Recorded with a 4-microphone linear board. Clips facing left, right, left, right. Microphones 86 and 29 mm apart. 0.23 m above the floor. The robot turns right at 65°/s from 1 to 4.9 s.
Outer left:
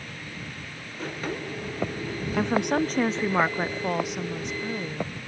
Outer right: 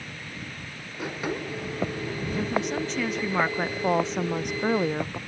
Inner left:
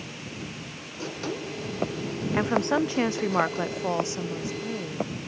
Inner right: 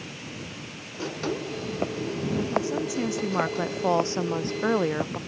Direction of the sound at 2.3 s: 95° left.